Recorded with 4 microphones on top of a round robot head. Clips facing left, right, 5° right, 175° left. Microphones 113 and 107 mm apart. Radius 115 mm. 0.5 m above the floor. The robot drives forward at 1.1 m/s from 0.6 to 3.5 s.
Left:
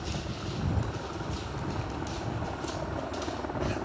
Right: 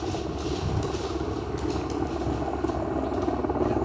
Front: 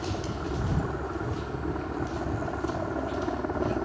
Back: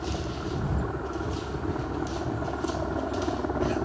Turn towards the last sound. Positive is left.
turn(degrees=-100)